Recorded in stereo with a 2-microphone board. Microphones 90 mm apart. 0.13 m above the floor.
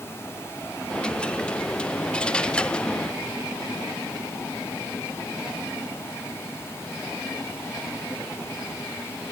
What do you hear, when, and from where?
0.9 s a dropped coin: 10° left (ahead or behind)